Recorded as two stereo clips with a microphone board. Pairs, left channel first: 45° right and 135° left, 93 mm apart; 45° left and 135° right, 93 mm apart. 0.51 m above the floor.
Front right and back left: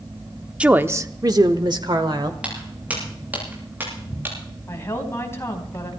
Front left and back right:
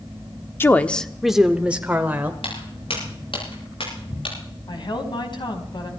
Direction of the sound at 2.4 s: 55° left.